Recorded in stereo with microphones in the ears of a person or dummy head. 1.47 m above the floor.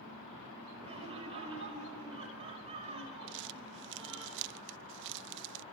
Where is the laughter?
30° right (ahead or behind), 5.5 m.